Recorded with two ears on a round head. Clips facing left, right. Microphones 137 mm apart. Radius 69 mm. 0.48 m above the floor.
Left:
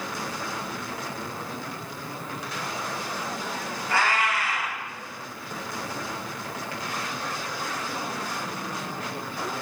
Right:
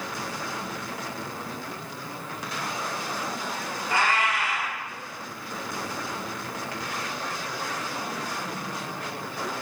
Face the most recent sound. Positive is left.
turn(degrees=-20)  # may be behind; listen again after turning